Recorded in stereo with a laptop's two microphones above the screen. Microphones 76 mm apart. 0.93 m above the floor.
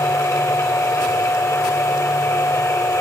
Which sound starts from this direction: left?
A machine running, at 0.0 s.